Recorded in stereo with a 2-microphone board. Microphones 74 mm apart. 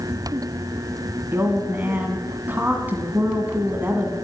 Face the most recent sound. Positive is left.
turn(degrees=-25)  # may be behind; listen again after turning